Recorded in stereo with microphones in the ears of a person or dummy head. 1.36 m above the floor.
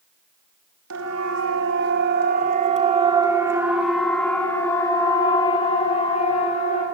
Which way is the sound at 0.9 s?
80° right.